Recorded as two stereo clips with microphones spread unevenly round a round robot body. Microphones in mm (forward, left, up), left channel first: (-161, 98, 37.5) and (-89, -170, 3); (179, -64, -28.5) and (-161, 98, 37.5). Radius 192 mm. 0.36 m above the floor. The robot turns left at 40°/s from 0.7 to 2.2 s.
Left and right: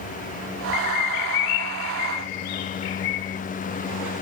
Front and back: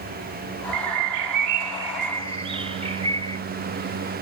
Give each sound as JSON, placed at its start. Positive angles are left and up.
{"t": 0.7, "sound": "a bird", "azimuth_deg": 135, "distance_m": 0.5}